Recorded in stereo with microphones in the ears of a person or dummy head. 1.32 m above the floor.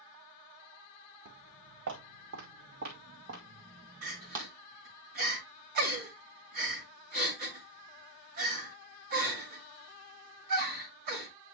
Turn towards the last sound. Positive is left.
turn(degrees=-50)  # may be behind; listen again after turning